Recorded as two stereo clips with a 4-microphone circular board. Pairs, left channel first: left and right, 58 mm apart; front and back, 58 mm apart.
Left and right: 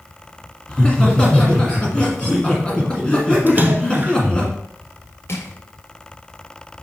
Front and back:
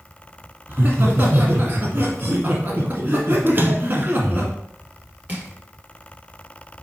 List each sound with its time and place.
0.7 s laughter: 150° left, 1.7 m
3.5 s a splash: 140° right, 0.8 m
5.3 s crushing: 125° left, 2 m